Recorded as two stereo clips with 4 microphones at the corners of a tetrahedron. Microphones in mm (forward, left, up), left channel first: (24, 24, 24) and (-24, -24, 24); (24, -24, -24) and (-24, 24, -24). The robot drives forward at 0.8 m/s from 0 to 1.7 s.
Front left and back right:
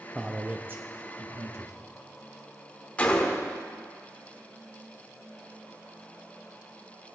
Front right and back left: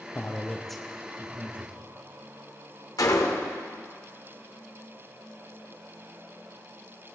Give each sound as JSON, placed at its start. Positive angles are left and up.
{"t": 0.1, "sound": "a man speaking", "azimuth_deg": -50, "distance_m": 0.7}
{"t": 3.0, "sound": "a gunshot", "azimuth_deg": -20, "distance_m": 1.0}